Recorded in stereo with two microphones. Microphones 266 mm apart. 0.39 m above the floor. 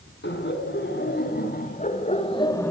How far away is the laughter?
About 4 m.